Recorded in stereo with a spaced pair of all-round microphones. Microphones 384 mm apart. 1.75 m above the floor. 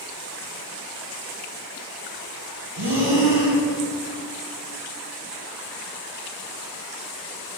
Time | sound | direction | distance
2.8 | breathing | 80° right | 1.7 m